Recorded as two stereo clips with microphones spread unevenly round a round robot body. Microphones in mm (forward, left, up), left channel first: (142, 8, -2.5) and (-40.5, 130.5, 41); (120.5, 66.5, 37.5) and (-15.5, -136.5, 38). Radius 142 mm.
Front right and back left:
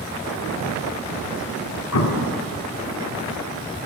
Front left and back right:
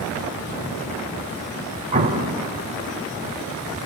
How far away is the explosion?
About 2 m.